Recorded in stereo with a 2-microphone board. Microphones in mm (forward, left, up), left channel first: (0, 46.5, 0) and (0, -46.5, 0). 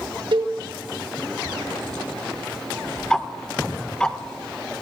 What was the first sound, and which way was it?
A cowbell, 65° right (ahead or behind).